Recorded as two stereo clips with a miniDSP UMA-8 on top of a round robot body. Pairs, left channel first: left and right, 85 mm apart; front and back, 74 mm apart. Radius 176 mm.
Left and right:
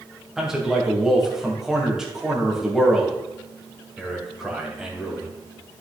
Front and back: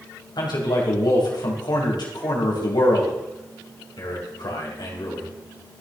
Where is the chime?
No chime in this recording.